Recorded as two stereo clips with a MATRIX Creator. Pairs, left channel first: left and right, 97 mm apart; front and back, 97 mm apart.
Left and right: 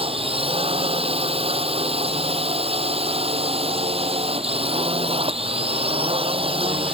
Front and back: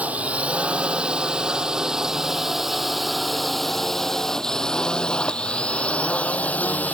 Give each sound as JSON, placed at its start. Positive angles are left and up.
{"t": 0.0, "sound": "a drone", "azimuth_deg": -105}